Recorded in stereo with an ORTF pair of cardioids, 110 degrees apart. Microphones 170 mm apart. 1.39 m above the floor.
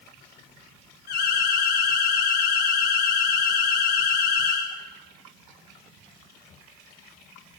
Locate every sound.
1.1 s an alarm: 65° left, 6 m